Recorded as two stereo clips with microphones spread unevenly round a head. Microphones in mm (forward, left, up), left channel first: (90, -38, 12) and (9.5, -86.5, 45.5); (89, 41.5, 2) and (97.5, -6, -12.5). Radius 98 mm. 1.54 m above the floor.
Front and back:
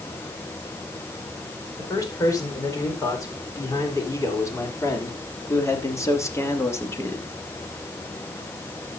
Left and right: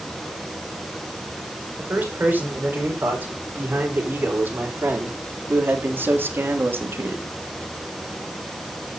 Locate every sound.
1.8 s a man speaking: 25° right, 5.5 m; by 7.3 s 40° right, 2.0 m